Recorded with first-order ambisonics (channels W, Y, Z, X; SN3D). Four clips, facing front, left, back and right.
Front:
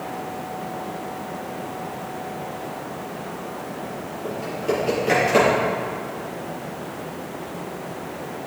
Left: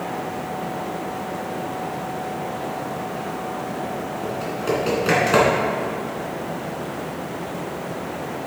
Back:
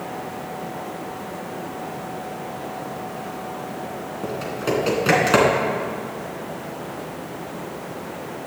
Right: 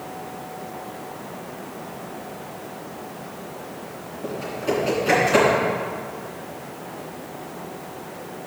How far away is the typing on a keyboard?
About 3 m.